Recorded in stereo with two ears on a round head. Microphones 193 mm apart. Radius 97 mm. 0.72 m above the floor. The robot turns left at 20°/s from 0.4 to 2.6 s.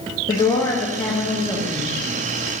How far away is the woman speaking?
About 0.5 m.